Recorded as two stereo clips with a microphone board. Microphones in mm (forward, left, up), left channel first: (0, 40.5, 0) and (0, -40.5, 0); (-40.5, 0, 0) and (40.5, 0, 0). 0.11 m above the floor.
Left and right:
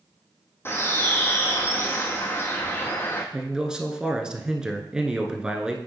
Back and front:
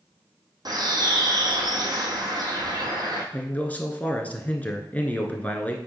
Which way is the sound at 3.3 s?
150° right.